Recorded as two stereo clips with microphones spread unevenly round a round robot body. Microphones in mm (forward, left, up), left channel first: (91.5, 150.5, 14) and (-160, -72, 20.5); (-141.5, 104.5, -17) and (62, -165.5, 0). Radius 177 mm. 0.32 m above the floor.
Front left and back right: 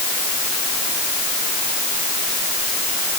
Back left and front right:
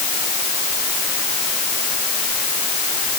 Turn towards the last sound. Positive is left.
No sound to turn to.